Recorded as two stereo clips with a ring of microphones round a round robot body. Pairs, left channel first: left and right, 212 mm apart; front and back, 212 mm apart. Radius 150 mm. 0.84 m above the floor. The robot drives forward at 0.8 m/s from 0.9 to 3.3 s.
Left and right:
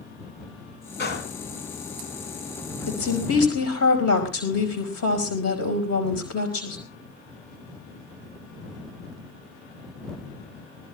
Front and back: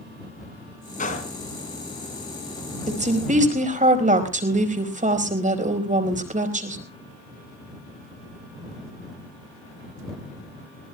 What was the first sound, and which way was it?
A gunshot, 55° left.